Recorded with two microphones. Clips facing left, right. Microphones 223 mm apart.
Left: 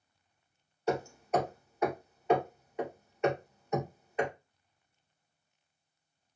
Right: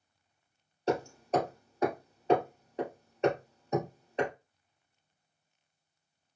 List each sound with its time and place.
0.9 s hammering: 30° right (ahead or behind), 2.0 m